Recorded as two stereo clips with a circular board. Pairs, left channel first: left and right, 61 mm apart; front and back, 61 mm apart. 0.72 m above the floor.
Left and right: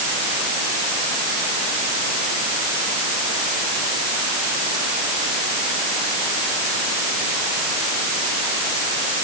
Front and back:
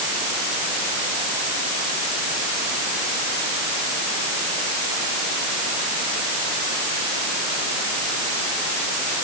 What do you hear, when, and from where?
Only background noise.